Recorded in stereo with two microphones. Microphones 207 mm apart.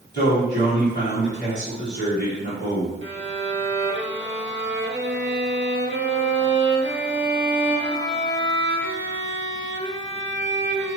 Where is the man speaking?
60° left (ahead or behind), 1.8 m.